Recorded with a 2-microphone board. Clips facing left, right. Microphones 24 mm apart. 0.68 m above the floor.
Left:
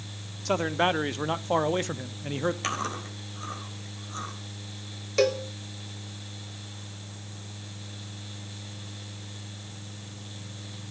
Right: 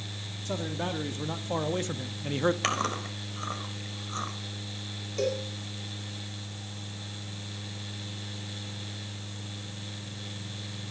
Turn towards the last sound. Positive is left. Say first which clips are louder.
# left 6 dB
turn(degrees=60)  # may be behind; listen again after turning